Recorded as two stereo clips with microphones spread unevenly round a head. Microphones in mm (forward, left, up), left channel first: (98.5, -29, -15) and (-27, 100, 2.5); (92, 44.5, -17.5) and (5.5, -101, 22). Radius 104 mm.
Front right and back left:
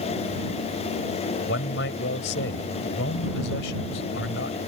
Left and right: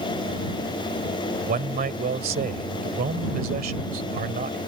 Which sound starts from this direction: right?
A man speaking, at 1.4 s.